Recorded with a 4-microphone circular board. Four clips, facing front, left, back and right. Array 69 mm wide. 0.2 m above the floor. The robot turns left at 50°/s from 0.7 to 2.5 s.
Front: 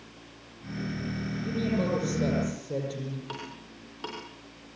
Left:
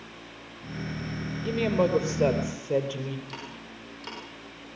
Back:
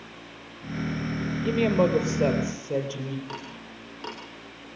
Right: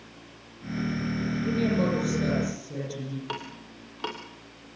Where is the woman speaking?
165° left, 5 m; by 3.2 s 110° left, 5 m.